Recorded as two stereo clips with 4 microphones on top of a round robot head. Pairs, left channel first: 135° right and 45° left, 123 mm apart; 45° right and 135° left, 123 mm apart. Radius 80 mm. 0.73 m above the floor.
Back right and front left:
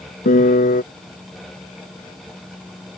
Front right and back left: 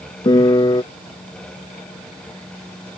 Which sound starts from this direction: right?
A piano, at 0.2 s.